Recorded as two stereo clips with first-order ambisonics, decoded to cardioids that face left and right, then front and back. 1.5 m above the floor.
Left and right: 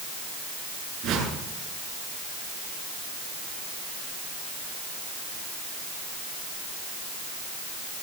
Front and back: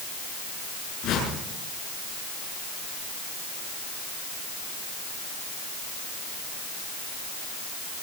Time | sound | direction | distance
1.0 | a whoosh | 40° right | 8 m